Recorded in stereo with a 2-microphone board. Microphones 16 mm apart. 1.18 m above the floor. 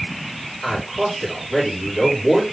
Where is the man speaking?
15° right (ahead or behind), 4 m.